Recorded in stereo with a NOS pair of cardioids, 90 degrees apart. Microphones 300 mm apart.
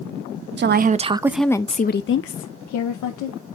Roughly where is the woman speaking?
Ahead right.